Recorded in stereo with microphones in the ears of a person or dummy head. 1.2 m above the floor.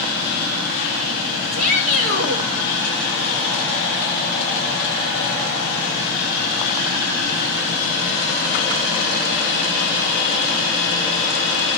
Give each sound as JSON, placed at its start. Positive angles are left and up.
{"t": 1.5, "sound": "a shout", "side_deg": -45, "distance_m": 5.5}